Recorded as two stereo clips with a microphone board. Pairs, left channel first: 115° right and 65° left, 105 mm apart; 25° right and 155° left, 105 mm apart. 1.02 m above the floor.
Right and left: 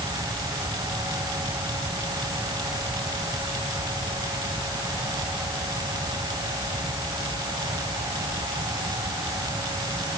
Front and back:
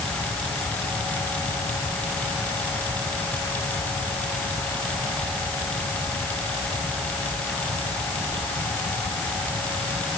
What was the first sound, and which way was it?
Only background noise.